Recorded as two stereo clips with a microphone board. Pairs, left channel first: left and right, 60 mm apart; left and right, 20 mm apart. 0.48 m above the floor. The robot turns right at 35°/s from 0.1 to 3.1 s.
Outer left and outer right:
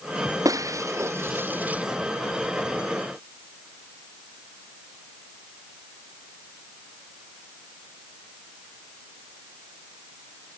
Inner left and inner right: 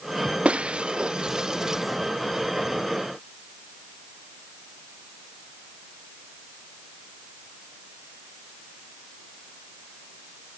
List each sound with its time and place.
0.5 s breaking glass: 70° right (ahead or behind); by 1.8 s 20° right (ahead or behind)